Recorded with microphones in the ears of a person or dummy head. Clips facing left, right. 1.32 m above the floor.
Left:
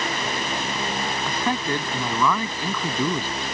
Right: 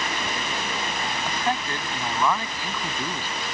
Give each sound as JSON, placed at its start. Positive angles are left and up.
{"t": 1.2, "sound": "a man speaking", "side_deg": 80}